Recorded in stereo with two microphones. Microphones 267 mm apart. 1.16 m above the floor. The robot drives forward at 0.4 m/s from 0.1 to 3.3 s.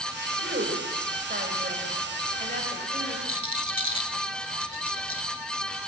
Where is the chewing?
I don't hear chewing.